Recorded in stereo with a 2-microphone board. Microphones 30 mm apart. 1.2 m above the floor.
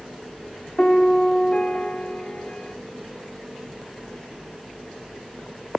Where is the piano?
40° left (ahead or behind), 1.7 m.